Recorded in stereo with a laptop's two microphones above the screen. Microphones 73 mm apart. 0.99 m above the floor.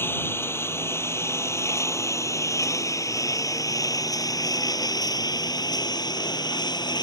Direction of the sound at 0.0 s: 30° left (ahead or behind).